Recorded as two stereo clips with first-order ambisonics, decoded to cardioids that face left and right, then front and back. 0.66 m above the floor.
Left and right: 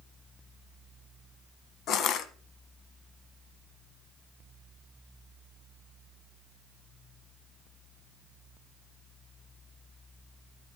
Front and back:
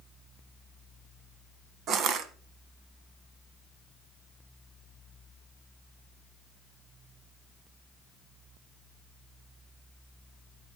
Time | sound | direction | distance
1.9 | crushing | 130° left | 1.0 m